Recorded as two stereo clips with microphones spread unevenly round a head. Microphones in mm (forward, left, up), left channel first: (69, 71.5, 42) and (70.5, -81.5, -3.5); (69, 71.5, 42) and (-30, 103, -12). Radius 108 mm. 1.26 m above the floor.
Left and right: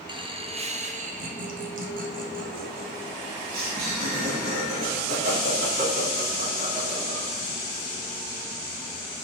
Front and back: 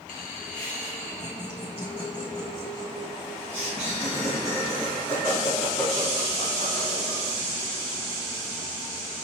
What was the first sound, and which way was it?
Laughter, 40° right.